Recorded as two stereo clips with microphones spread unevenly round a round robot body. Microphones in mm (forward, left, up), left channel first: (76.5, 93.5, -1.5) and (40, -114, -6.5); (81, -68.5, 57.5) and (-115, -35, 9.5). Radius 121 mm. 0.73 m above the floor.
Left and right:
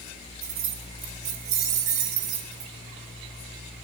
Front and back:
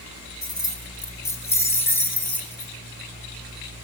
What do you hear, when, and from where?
0.4 s keys jangling: 80° right, 6 m; by 2.7 s 90° right, 8.5 m